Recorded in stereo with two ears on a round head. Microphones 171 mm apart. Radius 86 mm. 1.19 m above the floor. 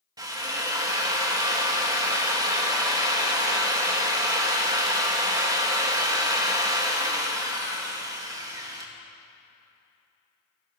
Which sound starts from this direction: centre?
A drill, at 0.2 s.